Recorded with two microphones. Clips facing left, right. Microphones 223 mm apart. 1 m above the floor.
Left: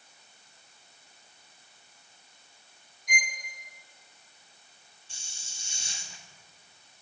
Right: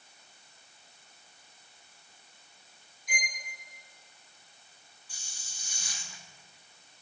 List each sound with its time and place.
3.1 s a violin: 55° left (ahead or behind), 1.8 m
5.1 s a hiss: 25° left (ahead or behind), 0.9 m